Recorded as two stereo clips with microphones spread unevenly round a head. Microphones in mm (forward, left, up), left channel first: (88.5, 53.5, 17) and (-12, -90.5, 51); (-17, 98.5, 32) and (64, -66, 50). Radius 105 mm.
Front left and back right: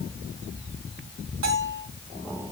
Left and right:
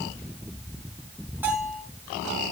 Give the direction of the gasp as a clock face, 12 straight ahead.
No gasp in this recording.